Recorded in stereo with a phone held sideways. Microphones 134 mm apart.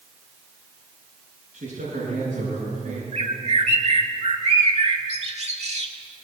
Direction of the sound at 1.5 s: 85° right.